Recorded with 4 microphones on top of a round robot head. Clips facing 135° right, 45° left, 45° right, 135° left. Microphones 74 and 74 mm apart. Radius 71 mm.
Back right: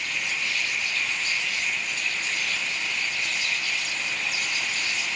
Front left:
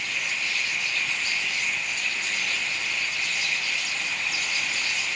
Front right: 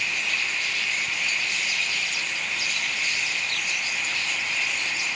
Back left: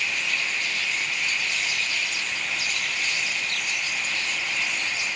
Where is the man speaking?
I don't hear a man speaking.